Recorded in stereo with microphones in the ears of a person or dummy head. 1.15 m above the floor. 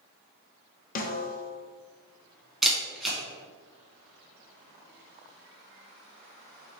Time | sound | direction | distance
0.9 | a snare drum | 40° left (ahead or behind) | 0.5 m
2.6 | a camera shutter | 5° right (ahead or behind) | 1.1 m